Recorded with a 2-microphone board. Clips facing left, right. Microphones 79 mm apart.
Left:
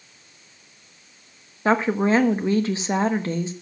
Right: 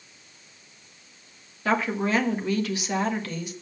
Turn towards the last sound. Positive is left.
turn(degrees=30)  # may be behind; listen again after turning